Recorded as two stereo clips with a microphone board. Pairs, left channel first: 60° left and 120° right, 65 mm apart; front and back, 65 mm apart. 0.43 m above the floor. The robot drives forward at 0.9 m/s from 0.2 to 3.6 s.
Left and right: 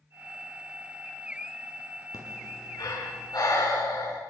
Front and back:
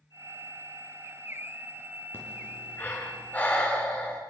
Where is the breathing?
55° left, 6.5 m; by 4.2 s 65° left, 6 m.